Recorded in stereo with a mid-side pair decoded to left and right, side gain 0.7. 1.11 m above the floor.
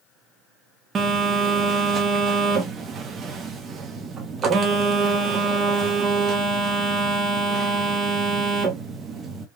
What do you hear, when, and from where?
0.9 s a phone buzzing: 30° right, 1.0 m